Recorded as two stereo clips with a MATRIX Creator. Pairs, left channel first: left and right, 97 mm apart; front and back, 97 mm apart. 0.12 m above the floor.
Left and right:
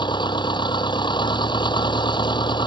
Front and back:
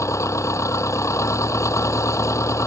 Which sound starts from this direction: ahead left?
An engine running, at 0.0 s.